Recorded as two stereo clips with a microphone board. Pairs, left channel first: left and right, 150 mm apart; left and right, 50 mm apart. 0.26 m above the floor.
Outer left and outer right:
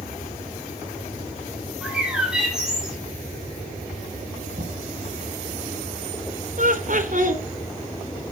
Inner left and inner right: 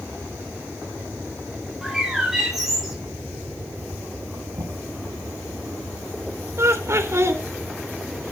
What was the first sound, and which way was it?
A bird, 5° right (ahead or behind).